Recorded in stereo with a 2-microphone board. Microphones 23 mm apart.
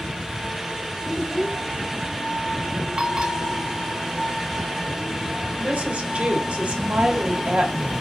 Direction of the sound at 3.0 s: 40° right (ahead or behind).